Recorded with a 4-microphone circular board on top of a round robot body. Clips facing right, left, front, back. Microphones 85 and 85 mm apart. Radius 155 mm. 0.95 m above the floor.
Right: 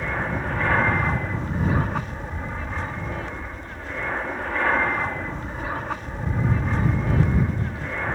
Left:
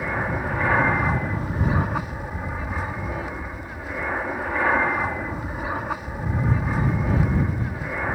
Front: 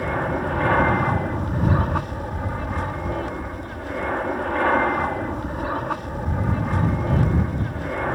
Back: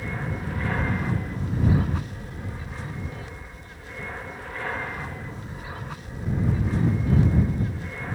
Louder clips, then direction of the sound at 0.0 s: Left 1 dB, front 9 dB; 10° left.